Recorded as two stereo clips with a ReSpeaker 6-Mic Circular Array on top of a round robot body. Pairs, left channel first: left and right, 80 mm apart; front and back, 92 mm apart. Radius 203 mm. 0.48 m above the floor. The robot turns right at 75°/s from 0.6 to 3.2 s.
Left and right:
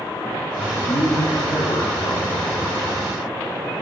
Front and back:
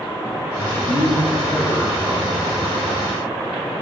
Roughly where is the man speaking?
Ahead.